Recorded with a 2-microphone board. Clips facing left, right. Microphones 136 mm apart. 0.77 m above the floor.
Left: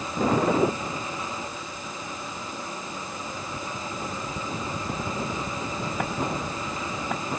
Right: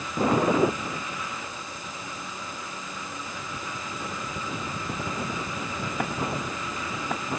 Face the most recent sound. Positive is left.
No sound to turn to.